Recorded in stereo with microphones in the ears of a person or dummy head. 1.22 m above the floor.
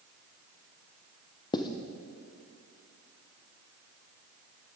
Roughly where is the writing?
Centre.